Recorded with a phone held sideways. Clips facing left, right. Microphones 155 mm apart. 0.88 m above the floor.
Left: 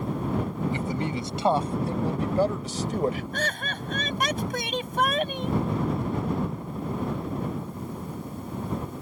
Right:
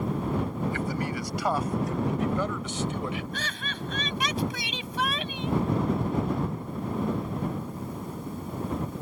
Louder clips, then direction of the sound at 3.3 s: Left 5 dB; 50° left (ahead or behind).